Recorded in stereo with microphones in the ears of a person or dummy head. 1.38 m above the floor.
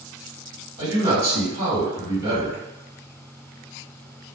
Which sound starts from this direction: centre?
A man speaking, at 0.8 s.